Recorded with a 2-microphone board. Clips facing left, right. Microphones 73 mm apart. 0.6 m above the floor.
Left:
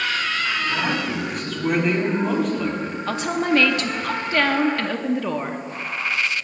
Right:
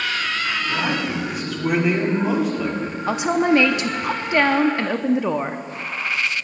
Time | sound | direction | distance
0.7 | a man speaking | 5° right (ahead or behind) | 3 m
3.1 | a woman speaking | 20° right (ahead or behind) | 0.6 m